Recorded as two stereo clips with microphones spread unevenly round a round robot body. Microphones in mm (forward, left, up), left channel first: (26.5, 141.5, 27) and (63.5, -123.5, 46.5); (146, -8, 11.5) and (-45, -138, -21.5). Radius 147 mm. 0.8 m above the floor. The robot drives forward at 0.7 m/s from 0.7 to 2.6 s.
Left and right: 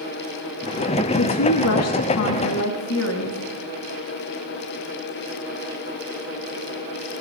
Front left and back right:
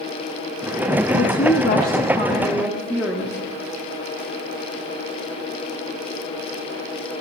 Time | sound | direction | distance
1.1 | a woman speaking | 75° left | 1.2 m